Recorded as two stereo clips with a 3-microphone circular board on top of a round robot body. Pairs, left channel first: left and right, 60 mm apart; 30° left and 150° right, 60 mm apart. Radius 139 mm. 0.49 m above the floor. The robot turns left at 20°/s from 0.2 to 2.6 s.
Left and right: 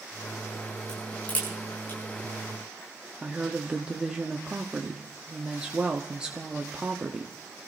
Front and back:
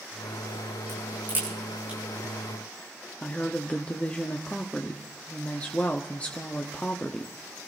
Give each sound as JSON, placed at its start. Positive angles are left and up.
{"t": 0.9, "sound": "a crack", "azimuth_deg": 165, "distance_m": 9.0}
{"t": 3.2, "sound": "a woman speaking", "azimuth_deg": -20, "distance_m": 1.5}